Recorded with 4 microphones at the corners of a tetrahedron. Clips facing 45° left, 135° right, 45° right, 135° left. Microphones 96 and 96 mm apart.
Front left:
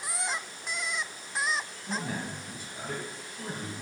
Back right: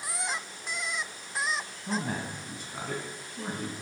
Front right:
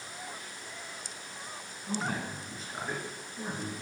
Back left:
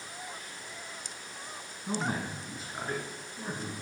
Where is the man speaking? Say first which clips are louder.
Back right 3 dB, back left 1 dB; 175° right, 1.5 m; by 3.7 s 115° right, 3 m.